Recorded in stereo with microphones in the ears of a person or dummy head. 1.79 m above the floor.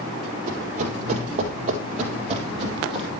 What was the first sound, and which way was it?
Running footsteps, 45° right (ahead or behind).